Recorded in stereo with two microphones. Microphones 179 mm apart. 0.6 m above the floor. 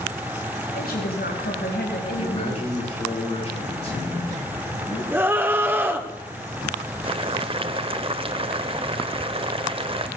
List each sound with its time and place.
0.7 s a woman speaking: 55° left (ahead or behind), 3 m; by 3.0 s 80° left, 4 m
2.2 s a man speaking: 35° left (ahead or behind), 6.5 m
5.1 s a scream: 10° right (ahead or behind), 1.5 m
7.0 s boiling: 30° right (ahead or behind), 0.6 m